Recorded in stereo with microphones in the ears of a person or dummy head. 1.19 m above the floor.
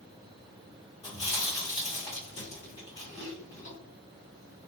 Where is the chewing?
30° left (ahead or behind), 1.3 m.